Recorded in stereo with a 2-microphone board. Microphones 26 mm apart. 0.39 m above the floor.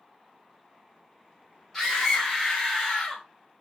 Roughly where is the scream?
Centre.